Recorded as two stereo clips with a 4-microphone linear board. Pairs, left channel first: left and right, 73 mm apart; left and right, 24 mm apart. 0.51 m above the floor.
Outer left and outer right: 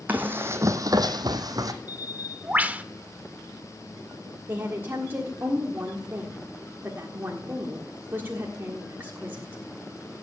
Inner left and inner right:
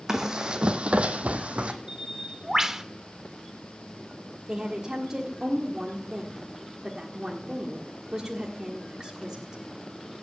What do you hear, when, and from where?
0.1 s running footsteps: 20° right (ahead or behind), 1.5 m; by 1.7 s 55° right (ahead or behind), 1.3 m
1.9 s a bird: 25° right (ahead or behind), 0.6 m
4.5 s a woman speaking: 30° right (ahead or behind), 1.4 m